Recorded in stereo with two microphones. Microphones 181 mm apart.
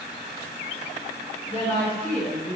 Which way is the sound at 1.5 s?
35° left (ahead or behind).